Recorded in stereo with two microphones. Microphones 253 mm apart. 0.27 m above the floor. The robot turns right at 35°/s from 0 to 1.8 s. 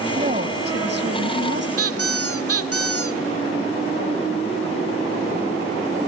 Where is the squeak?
75° right (ahead or behind), 0.6 m.